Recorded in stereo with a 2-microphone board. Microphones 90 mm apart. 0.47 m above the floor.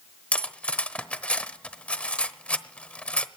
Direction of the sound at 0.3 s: 15° left (ahead or behind).